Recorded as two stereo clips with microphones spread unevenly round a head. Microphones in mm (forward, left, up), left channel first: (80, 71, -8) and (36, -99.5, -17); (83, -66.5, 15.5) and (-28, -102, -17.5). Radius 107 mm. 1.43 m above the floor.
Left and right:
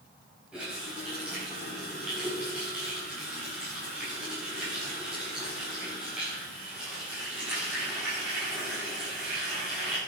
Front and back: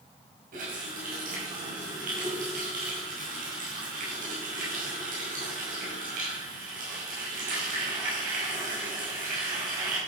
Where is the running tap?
170° left, 5.5 m.